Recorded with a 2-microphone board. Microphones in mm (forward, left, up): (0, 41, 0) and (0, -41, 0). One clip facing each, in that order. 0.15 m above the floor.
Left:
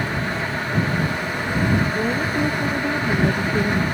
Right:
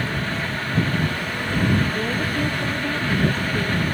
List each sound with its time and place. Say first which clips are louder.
1.9 s a woman speaking: left 2 dB; 10° left (ahead or behind); by 3.8 s 20° left (ahead or behind)